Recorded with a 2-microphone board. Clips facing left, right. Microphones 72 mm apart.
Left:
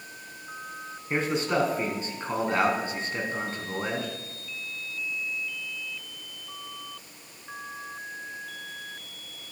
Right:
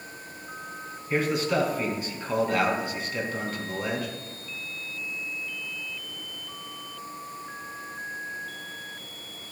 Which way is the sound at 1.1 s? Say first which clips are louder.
Right 1 dB; 30° left (ahead or behind).